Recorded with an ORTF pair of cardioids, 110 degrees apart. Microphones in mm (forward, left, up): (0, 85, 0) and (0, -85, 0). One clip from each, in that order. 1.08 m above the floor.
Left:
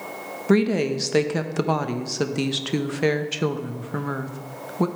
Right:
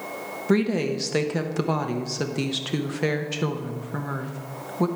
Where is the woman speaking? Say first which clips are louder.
Left 3 dB; 15° left, 0.8 m.